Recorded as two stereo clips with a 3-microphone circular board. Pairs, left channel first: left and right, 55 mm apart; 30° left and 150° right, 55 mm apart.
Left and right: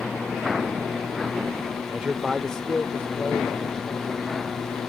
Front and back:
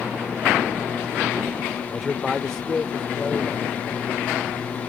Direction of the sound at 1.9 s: 75° right.